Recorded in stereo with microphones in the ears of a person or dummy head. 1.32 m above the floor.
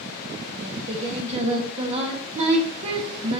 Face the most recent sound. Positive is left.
turn(degrees=-30)  # may be behind; listen again after turning